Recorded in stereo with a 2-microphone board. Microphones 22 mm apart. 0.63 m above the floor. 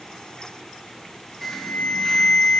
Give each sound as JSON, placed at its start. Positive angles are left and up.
{"t": 1.4, "sound": "an alarm", "side_deg": 10, "distance_m": 2.5}